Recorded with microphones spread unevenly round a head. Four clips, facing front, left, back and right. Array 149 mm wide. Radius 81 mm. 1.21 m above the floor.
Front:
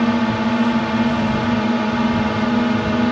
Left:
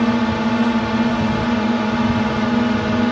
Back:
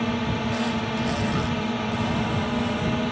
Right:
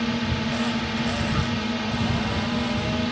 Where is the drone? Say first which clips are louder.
Left 9 dB, front 8 dB; 35° left.